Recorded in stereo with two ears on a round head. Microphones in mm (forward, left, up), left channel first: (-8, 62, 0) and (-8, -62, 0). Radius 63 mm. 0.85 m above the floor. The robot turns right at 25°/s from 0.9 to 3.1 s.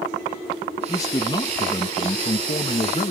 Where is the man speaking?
40° left; by 3.1 s 95° left.